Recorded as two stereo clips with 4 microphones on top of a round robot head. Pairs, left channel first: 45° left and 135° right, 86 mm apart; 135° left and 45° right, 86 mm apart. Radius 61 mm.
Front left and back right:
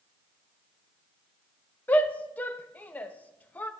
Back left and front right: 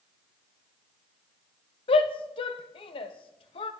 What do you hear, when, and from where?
1.9 s a shout: 115° left, 0.7 m